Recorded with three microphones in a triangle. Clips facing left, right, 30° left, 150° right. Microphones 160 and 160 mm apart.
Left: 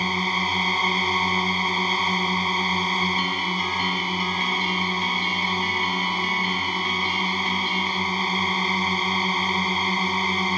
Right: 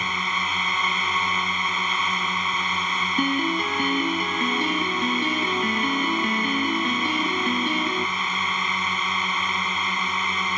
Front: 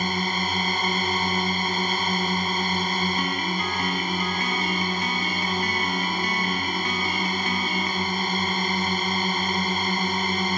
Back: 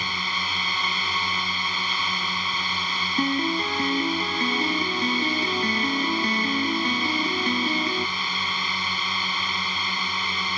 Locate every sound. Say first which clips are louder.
0.0 s a drone: left 3 dB, front 6 dB; 45° left
3.2 s a piano: right 5 dB, back 4 dB; 105° right